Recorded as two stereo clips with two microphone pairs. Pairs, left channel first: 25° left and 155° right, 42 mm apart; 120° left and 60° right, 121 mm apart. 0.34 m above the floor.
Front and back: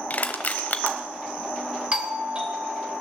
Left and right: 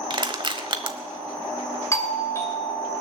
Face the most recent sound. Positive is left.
turn(degrees=170)